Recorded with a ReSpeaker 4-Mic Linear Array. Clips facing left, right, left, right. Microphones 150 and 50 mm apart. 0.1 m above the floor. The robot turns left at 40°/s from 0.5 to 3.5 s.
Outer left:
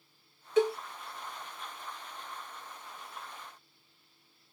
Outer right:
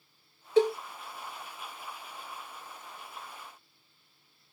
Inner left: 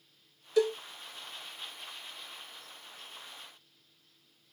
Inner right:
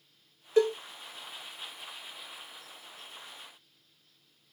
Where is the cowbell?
35° right (ahead or behind), 1.0 m; by 0.8 s 40° right (ahead or behind), 1.0 m.